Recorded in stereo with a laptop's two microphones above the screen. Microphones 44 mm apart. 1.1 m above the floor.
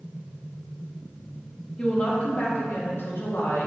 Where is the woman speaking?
25° left (ahead or behind), 1.9 m; by 3.7 s 70° left (ahead or behind), 2.5 m.